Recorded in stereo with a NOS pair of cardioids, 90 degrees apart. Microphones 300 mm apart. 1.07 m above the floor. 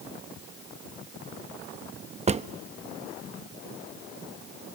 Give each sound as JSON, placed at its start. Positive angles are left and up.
{"t": 2.3, "sound": "a drawer", "azimuth_deg": -25, "distance_m": 0.6}